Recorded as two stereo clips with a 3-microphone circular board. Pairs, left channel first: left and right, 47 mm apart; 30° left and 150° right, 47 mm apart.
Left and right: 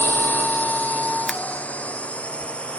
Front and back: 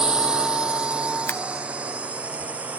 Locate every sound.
0.0 s a drone: 135° left; by 2.8 s 155° left
1.3 s scissors: straight ahead